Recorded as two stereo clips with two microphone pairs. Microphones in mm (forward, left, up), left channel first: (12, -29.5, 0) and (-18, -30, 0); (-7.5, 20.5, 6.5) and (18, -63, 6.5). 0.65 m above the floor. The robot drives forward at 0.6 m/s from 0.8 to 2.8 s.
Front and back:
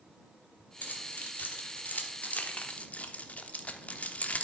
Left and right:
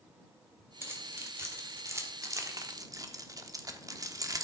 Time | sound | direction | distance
0.8 | keys jangling | 10° right | 2 m